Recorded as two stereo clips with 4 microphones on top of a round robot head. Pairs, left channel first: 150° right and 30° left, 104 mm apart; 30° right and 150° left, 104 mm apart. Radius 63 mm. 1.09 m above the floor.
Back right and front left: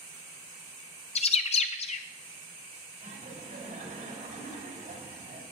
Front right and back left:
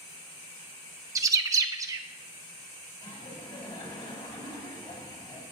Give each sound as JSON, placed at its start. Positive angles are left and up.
{"t": 1.1, "sound": "a bird", "azimuth_deg": -155, "distance_m": 0.9}
{"t": 3.0, "sound": "laughter", "azimuth_deg": 10, "distance_m": 5.0}